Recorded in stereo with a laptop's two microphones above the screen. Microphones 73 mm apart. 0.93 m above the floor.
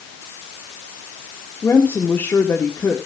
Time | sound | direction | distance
1.6 | a woman speaking | 25° left (ahead or behind) | 1.9 m